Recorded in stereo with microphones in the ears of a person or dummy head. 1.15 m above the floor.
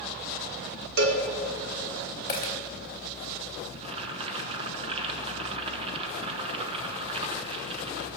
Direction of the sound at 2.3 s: 30° left (ahead or behind).